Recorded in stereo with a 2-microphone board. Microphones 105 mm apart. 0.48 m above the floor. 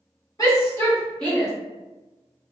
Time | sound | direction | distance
0.4 | a shout | 35° left (ahead or behind) | 1.3 m